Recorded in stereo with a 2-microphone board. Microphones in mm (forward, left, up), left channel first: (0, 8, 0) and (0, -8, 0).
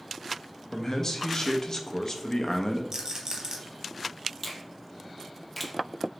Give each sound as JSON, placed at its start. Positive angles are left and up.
{"t": 0.7, "sound": "a man speaking", "side_deg": 45, "distance_m": 0.5}
{"t": 2.9, "sound": "a rattle", "side_deg": -55, "distance_m": 0.9}
{"t": 4.4, "sound": "a finger snap", "side_deg": 15, "distance_m": 0.5}